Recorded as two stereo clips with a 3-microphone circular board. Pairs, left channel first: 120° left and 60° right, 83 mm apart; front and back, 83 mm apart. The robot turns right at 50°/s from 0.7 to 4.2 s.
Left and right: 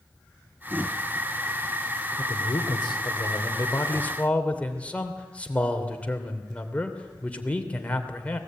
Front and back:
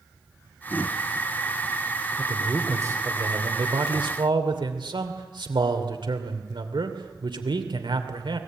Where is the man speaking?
95° left, 2.5 m; by 8.4 s 165° right, 2.5 m.